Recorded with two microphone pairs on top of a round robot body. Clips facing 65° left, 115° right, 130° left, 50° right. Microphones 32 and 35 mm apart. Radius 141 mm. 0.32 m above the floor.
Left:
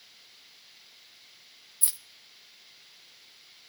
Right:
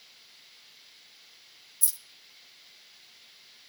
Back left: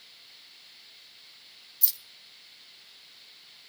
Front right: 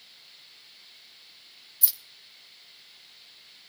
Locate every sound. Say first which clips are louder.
1.8 s keys jangling: left 1 dB, front right 1 dB; 30° left, 0.9 m